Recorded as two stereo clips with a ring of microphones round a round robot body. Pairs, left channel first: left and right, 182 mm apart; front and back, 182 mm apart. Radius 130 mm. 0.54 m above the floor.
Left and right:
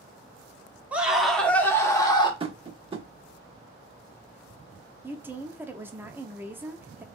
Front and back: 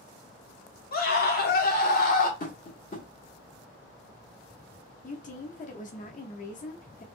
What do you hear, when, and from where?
0.9 s a scream: 10° right, 1.5 m; by 2.3 s 30° left, 1.6 m
2.4 s tapping: 35° right, 1.3 m
5.0 s a woman speaking: 15° right, 0.7 m